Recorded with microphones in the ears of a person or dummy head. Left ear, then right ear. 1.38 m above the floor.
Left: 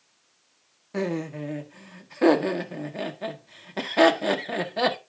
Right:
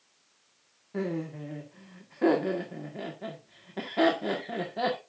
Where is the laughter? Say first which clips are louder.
Left 5 dB; 75° left (ahead or behind), 1.5 m.